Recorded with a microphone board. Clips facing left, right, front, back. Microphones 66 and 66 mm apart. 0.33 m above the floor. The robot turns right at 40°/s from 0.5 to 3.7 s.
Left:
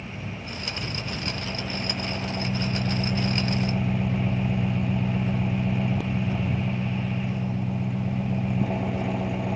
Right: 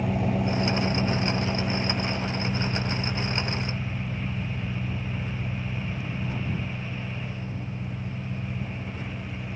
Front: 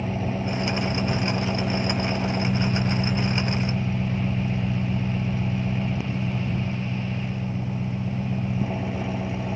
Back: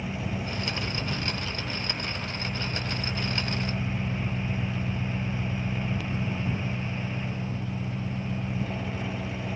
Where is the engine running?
60° right; by 9.6 s 70° left.